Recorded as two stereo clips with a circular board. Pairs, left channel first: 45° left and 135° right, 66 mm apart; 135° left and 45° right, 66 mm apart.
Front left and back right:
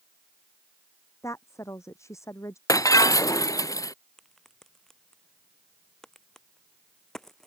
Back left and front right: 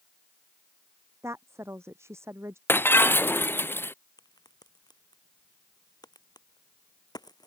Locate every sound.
1.2 s a woman speaking: straight ahead
2.7 s breaking glass: 75° left
4.2 s a crack: 130° left